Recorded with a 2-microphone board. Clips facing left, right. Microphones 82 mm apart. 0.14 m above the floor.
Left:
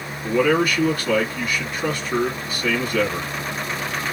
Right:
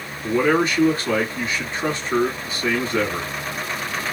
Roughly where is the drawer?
I don't hear a drawer.